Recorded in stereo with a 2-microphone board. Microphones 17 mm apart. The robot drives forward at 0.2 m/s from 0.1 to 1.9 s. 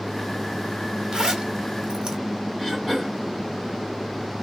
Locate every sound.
1.1 s a zipper: 35° right (ahead or behind), 0.8 m
2.6 s throat clearing: 20° left (ahead or behind), 3 m